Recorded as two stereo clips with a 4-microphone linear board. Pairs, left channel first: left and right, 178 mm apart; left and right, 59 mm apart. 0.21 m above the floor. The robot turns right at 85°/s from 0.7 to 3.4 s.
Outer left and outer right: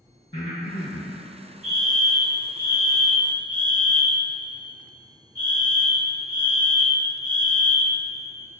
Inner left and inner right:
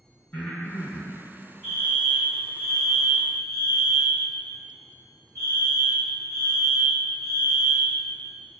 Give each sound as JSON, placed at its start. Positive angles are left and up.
{"t": 0.3, "sound": "breathing", "azimuth_deg": 150, "distance_m": 2.0}
{"t": 1.6, "sound": "a fire alarm", "side_deg": -5, "distance_m": 2.0}